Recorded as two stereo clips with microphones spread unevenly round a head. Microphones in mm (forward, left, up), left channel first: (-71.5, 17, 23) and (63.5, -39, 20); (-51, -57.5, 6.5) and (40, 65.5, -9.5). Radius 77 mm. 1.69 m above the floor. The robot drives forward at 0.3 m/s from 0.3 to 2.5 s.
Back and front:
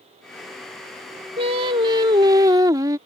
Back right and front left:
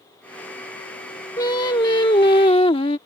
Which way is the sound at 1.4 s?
70° right.